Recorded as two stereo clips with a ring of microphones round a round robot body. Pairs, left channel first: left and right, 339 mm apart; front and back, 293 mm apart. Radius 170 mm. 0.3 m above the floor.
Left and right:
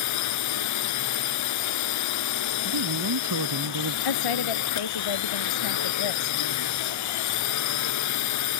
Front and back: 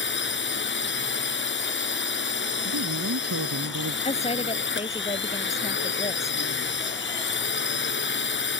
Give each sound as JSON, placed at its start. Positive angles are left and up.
{"t": 0.0, "sound": "a drone", "azimuth_deg": 50}
{"t": 2.6, "sound": "a man speaking", "azimuth_deg": -130}
{"t": 4.0, "sound": "a woman speaking", "azimuth_deg": 70}